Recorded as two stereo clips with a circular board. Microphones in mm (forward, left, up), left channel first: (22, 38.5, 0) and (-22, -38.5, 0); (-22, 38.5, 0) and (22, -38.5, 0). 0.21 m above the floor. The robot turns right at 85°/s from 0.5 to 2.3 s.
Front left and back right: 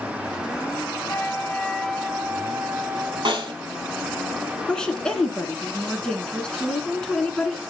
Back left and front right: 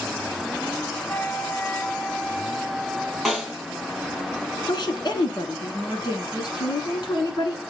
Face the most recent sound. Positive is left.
turn(degrees=140)